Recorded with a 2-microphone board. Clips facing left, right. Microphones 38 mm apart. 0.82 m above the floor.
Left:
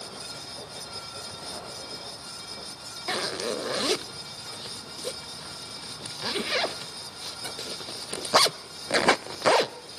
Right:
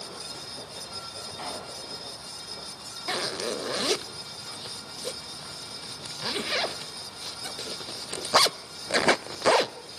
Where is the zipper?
5° left (ahead or behind), 0.5 m.